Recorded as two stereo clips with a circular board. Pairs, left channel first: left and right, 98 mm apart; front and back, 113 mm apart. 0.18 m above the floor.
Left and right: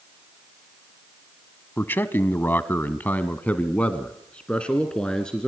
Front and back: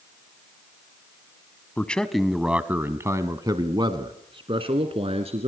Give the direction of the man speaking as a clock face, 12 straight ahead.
10 o'clock.